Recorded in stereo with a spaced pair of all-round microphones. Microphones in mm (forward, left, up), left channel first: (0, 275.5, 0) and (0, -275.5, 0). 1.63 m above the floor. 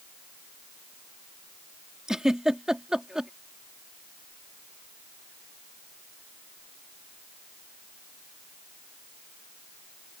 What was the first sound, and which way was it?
A giggle, centre (ahead or behind).